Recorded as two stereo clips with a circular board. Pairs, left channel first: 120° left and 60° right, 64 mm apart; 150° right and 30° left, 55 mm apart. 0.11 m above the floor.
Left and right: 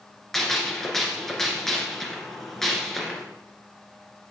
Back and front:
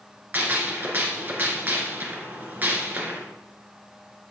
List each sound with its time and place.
0.3 s a gunshot: 40° left, 1.7 m